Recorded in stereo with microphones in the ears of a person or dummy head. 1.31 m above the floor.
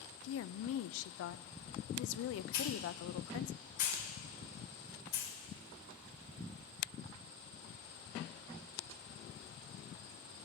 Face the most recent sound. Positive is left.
turn(degrees=55)  # may be behind; listen again after turning